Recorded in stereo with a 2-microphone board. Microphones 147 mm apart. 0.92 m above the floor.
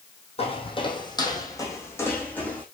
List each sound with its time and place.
0.4 s footsteps: 40° left (ahead or behind), 2.5 m; by 2.6 s 10° left (ahead or behind), 3 m